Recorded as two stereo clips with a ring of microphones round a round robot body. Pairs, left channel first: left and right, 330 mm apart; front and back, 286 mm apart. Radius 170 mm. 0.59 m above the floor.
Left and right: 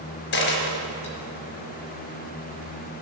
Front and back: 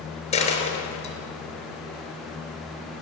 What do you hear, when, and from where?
0.3 s a dropped coin: 70° left, 4 m